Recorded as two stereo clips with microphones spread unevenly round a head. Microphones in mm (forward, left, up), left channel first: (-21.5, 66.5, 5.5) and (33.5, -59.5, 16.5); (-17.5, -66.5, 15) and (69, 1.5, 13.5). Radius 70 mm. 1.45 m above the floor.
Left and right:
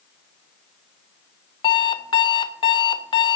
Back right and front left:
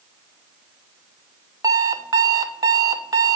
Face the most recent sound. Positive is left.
turn(degrees=75)